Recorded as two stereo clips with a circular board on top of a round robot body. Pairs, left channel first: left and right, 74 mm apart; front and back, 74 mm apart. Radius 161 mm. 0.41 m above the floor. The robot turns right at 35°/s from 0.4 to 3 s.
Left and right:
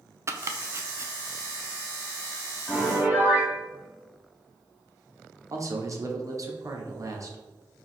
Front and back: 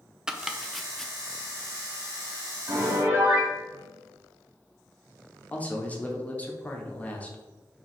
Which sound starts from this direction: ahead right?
A man speaking, at 5.5 s.